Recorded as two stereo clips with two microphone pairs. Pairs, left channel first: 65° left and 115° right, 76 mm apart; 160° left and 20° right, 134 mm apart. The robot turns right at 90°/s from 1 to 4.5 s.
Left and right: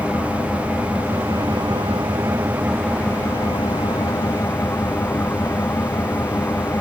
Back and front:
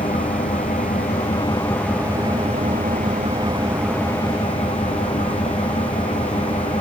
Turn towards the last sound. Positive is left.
turn(degrees=125)